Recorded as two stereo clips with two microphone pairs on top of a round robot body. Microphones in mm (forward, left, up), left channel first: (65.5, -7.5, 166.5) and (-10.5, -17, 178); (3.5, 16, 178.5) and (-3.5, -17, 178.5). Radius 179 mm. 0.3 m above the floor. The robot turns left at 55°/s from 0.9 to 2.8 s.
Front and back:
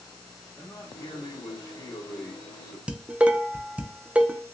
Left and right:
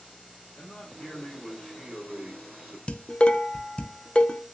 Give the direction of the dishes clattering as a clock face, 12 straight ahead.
8 o'clock.